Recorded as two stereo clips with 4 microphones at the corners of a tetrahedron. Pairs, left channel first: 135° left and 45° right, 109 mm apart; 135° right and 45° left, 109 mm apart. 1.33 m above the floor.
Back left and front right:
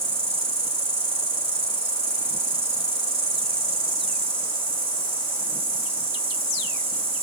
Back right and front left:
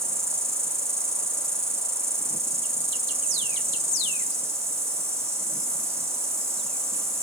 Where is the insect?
20° right, 4.5 m.